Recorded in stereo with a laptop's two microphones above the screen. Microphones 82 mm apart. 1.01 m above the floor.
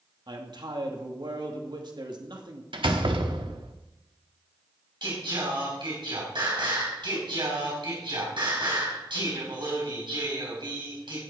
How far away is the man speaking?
About 2 m.